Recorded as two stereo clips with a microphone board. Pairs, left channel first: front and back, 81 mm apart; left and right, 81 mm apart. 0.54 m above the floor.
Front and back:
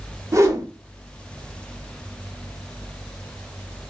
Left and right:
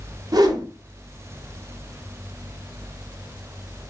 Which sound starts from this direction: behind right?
A whoosh, at 0.3 s.